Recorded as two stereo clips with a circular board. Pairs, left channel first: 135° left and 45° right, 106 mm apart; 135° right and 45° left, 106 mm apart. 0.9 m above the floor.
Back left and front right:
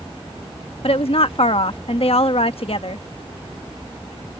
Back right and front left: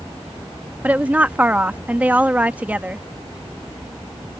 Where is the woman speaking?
120° left.